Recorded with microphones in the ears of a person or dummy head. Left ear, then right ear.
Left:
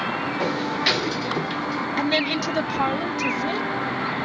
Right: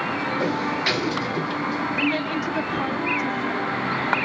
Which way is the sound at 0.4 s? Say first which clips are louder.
Left 2 dB; 10° left (ahead or behind).